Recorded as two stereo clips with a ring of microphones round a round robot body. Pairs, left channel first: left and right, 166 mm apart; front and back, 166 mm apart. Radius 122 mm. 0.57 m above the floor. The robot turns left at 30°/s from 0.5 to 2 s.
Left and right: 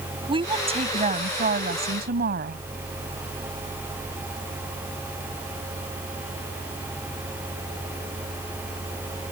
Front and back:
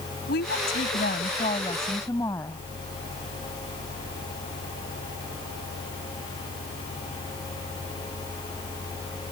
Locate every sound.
0.3 s a woman speaking: 35° right; by 2.6 s 80° right